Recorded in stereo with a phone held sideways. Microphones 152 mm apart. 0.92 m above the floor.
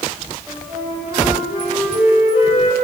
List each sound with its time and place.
0.5 s a flute: 10° right (ahead or behind), 8 m